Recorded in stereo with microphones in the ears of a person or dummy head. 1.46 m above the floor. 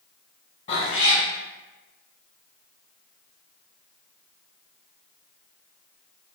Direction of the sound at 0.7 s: 20° left (ahead or behind).